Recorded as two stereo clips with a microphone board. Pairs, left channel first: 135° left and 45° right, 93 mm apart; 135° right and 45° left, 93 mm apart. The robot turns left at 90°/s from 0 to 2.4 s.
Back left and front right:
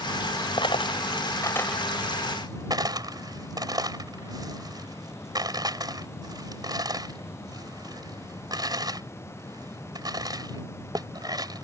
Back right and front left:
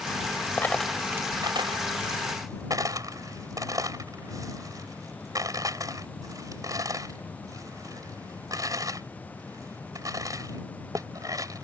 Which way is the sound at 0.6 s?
160° left.